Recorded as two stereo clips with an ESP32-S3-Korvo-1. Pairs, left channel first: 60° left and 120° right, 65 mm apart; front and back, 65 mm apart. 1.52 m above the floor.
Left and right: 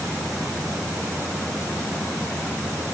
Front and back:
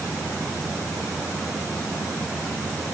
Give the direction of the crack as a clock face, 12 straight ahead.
No crack in this recording.